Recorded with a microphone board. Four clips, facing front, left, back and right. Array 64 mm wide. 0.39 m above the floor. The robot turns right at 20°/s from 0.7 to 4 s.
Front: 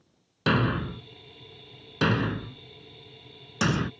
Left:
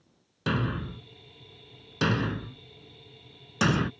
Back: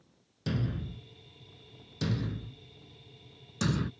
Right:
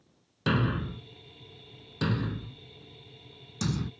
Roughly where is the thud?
Ahead.